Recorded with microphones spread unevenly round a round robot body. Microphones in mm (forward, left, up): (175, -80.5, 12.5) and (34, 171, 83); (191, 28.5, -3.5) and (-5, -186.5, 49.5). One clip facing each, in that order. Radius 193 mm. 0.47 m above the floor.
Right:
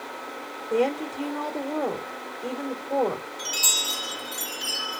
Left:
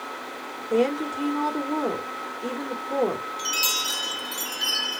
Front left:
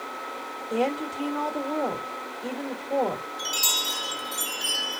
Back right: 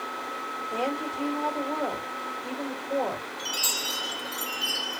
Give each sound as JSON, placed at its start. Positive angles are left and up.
{"t": 0.7, "sound": "a woman speaking", "azimuth_deg": 45, "distance_m": 1.9}
{"t": 3.4, "sound": "a chime", "azimuth_deg": 60, "distance_m": 2.0}